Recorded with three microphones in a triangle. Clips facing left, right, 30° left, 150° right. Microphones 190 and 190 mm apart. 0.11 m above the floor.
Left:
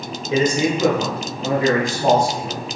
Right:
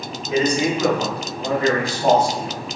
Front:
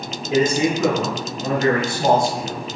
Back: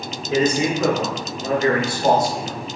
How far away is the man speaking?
About 1.6 m.